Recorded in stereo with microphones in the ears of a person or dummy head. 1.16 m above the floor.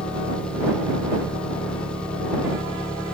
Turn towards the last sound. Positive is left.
turn(degrees=5)  # may be behind; listen again after turning